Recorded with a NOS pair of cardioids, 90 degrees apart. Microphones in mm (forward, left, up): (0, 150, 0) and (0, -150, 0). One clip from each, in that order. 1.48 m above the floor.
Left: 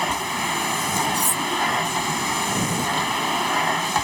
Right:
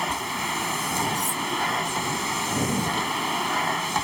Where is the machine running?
25° left.